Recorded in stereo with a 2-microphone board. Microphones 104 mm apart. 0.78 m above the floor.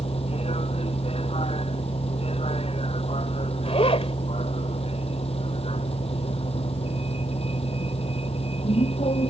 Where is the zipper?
80° left.